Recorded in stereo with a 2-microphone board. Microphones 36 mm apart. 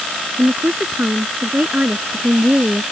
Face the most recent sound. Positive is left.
turn(degrees=-45)  # may be behind; listen again after turning